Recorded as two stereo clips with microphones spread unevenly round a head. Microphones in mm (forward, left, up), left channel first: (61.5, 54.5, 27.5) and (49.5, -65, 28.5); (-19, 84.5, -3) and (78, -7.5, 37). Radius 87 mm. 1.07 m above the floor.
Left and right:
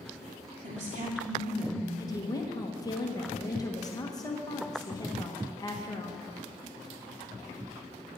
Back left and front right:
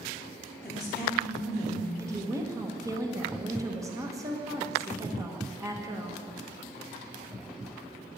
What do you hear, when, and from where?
0.6 s a woman speaking: 140° right, 2.5 m
2.0 s a woman speaking: 30° left, 1.4 m